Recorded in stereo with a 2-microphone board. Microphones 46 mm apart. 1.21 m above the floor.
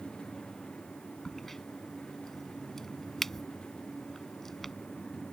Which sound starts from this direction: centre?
A crack, at 1.2 s.